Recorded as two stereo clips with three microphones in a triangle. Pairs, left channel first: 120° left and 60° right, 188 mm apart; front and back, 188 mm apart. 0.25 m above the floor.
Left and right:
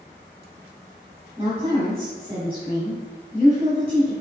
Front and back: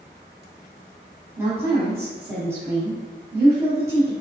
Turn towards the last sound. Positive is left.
turn(degrees=-110)